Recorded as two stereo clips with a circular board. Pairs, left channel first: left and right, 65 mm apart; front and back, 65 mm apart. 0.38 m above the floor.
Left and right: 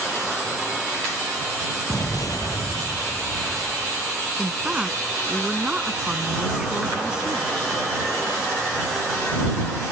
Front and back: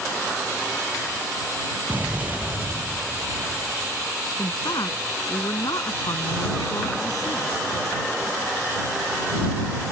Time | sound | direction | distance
1.9 | an explosion | 110° left | ?
4.4 | a woman speaking | 10° right | ?